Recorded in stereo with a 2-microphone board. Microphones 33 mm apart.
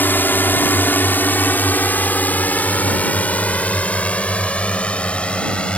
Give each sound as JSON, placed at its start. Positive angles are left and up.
{"t": 0.0, "sound": "a drone", "side_deg": 70}